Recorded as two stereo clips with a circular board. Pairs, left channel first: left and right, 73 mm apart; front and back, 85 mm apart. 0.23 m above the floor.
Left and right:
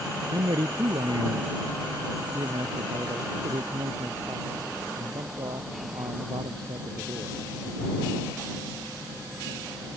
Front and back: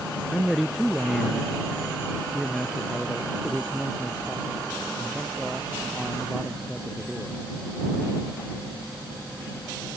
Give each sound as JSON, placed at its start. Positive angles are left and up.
{"t": 0.3, "sound": "a man speaking", "azimuth_deg": -90}